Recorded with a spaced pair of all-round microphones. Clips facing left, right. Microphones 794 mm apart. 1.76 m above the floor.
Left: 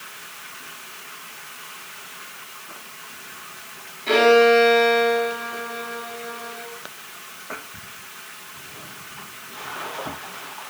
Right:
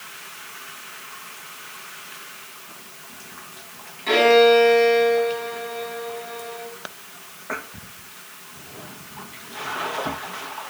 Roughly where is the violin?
Right.